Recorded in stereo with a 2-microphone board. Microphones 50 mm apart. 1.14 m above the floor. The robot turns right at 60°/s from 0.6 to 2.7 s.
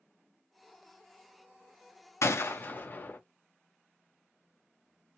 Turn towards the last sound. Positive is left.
turn(degrees=40)  # may be behind; listen again after turning